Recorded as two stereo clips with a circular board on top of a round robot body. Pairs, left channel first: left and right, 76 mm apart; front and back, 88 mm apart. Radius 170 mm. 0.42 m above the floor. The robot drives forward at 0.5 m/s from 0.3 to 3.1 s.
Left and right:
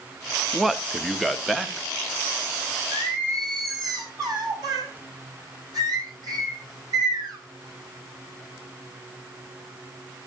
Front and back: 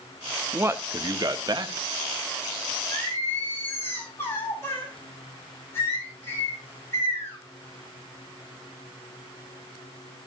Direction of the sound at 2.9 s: 60° right.